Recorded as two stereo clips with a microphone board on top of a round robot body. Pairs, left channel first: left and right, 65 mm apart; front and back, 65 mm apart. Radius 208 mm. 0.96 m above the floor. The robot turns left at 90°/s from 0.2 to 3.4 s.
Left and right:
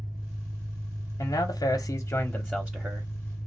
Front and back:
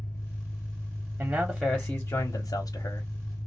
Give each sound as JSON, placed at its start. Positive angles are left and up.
{"t": 0.0, "sound": "an engine running", "azimuth_deg": -55, "distance_m": 1.1}
{"t": 1.2, "sound": "a man speaking", "azimuth_deg": 125, "distance_m": 1.1}